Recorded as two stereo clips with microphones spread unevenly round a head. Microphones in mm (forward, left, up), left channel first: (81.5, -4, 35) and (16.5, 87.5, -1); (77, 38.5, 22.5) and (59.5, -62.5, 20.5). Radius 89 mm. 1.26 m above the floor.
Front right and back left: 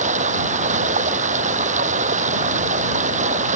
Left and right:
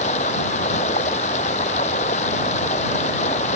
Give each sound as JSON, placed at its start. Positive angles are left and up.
{"t": 0.0, "sound": "running water", "azimuth_deg": 125}